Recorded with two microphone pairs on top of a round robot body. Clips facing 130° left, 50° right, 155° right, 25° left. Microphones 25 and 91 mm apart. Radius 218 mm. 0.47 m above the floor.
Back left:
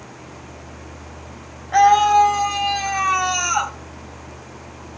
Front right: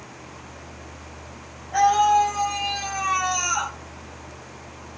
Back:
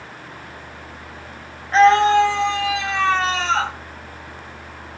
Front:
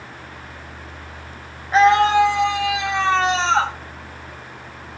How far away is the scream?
About 3.5 m.